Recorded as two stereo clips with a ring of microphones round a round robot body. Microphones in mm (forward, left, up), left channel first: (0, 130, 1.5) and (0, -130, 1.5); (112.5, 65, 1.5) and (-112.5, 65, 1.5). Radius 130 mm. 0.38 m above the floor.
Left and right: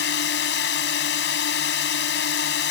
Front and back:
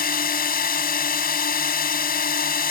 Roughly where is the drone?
Ahead left.